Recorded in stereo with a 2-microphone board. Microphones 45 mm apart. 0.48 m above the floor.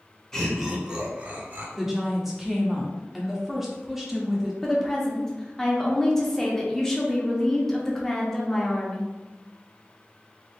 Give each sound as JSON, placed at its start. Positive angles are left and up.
{"t": 0.3, "sound": "laughter", "side_deg": 15, "distance_m": 0.7}
{"t": 1.8, "sound": "a woman speaking", "side_deg": -5, "distance_m": 0.7}
{"t": 4.6, "sound": "a woman speaking", "side_deg": 10, "distance_m": 0.7}